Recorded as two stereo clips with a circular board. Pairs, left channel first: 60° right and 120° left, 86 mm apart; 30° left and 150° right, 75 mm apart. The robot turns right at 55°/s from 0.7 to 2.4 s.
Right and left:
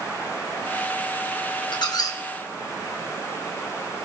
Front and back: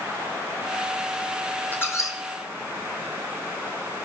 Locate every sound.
1.7 s a squeak: 35° right, 1.5 m; by 2.2 s 10° right, 1.5 m